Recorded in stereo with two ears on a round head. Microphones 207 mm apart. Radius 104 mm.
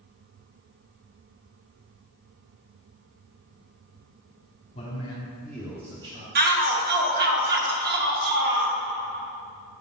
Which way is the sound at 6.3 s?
45° right (ahead or behind).